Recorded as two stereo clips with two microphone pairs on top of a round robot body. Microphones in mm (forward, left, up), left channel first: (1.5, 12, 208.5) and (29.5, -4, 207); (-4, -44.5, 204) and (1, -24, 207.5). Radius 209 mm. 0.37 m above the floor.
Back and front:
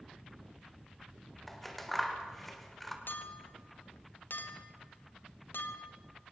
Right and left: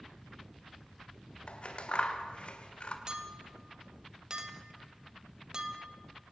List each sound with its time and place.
1.5 s scissors: 125° right, 2.5 m
3.1 s a clink: 135° left, 1.9 m